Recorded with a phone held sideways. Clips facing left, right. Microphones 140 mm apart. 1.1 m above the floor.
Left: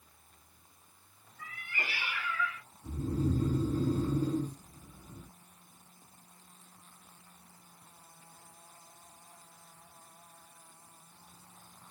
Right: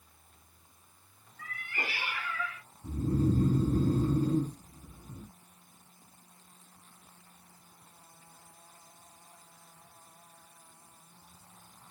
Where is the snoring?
55° right (ahead or behind), 3 m.